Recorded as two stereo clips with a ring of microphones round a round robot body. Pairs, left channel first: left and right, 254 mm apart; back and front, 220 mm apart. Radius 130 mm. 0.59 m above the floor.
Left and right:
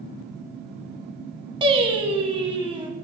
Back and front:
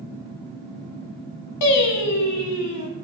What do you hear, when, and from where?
1.6 s singing: 160° right, 1.0 m